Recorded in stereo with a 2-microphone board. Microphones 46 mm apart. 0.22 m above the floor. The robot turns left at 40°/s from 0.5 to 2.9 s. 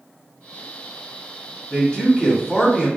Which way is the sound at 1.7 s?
25° left (ahead or behind).